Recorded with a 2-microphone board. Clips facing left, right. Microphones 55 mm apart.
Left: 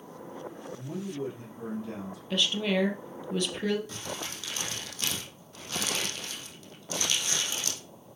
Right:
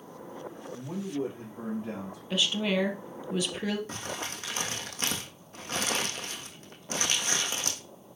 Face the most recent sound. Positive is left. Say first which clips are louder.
# right 1 dB
turn(degrees=-40)  # may be behind; listen again after turning